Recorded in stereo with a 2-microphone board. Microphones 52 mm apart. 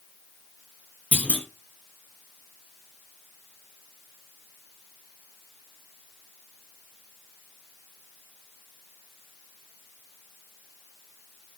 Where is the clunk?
30° left (ahead or behind), 0.9 m.